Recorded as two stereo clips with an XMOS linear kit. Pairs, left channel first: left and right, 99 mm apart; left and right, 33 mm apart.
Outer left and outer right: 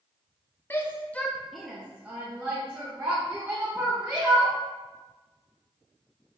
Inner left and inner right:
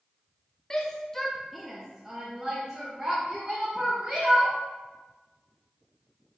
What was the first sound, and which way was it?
A shout, 25° left (ahead or behind).